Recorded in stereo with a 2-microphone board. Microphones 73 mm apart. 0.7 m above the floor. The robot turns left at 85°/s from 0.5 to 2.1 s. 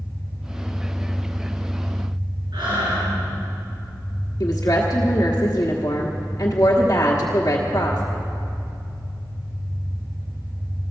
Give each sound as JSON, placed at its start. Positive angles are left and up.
{"t": 0.0, "sound": "an engine running", "azimuth_deg": 40, "distance_m": 6.0}
{"t": 2.5, "sound": "breathing", "side_deg": -80, "distance_m": 7.0}
{"t": 4.4, "sound": "a woman speaking", "side_deg": 45, "distance_m": 1.3}